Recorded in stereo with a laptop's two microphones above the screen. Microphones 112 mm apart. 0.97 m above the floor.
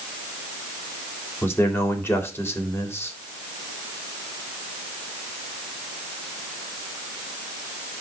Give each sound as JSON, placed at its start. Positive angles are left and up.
{"t": 1.4, "sound": "a man speaking", "side_deg": 20, "distance_m": 3.0}